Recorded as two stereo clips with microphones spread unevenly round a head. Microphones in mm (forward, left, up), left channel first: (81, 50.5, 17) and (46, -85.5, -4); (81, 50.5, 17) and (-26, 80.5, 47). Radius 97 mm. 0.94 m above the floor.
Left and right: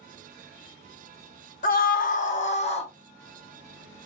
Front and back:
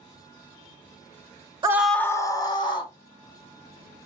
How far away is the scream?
About 0.6 m.